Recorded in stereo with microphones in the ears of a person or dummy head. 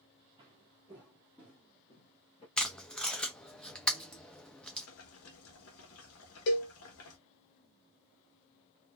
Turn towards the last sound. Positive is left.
turn(degrees=45)  # may be behind; listen again after turning